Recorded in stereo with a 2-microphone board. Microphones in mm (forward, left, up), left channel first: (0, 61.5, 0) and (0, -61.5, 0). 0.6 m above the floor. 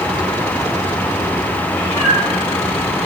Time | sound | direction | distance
1.7 | a cat meowing | 40° left (ahead or behind) | 7 m